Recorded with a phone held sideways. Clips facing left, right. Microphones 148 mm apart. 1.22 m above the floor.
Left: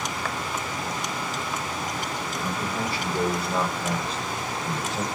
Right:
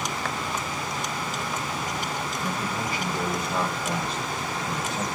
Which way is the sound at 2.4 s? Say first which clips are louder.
Left 2 dB; 35° left (ahead or behind).